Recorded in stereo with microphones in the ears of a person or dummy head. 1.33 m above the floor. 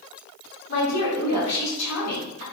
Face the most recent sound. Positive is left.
turn(degrees=85)